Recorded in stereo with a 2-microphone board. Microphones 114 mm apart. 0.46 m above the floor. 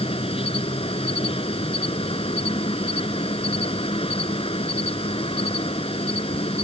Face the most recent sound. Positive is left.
turn(degrees=55)  # may be behind; listen again after turning